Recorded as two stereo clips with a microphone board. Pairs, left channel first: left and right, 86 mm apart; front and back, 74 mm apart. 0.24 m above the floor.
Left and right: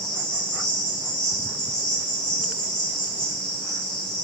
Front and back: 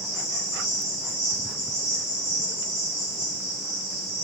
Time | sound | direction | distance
0.0 | an insect | 10° left | 1.1 m